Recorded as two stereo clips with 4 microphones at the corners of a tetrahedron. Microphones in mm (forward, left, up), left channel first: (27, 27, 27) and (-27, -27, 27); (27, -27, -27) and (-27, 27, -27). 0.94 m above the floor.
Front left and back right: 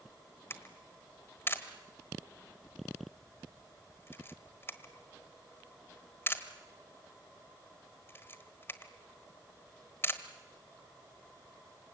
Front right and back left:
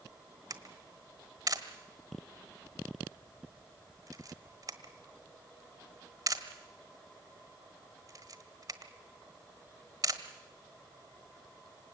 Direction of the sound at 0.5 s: 100° left.